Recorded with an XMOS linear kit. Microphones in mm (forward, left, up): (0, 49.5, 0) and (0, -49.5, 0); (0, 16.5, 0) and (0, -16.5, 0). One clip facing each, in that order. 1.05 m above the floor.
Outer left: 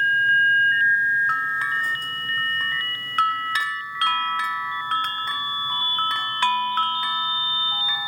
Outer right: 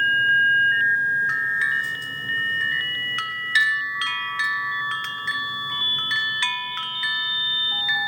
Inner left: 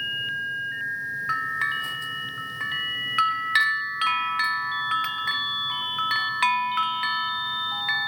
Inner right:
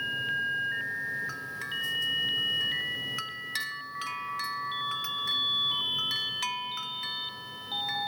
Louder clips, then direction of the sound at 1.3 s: Even, inner left 10 dB; 45° left (ahead or behind).